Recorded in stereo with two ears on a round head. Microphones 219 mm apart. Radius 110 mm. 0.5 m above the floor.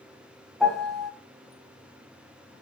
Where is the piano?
Centre (ahead or behind), 0.5 m.